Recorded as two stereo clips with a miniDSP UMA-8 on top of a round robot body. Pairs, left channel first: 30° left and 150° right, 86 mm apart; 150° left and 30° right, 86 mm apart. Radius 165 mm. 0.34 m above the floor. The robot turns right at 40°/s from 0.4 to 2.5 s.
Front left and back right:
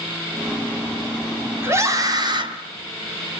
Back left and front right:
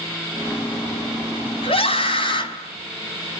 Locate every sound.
1.6 s a scream: 145° left, 4 m; by 2.5 s straight behind, 4 m